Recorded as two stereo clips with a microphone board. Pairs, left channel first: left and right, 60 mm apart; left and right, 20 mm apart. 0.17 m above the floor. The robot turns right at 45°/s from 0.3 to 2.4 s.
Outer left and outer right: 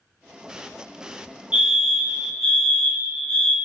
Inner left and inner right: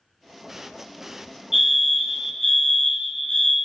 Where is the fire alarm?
45° right, 2 m; by 3.6 s 5° right, 2 m.